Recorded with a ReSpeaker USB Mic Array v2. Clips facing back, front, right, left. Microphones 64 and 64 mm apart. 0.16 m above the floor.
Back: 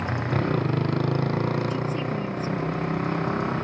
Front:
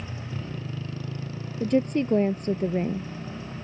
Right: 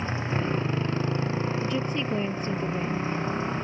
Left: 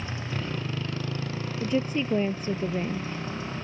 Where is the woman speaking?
20° left.